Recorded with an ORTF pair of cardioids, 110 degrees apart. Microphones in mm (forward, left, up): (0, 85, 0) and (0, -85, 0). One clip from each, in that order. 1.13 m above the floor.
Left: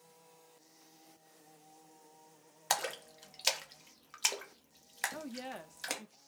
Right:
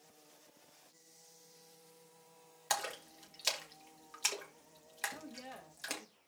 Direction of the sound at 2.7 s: 20° left.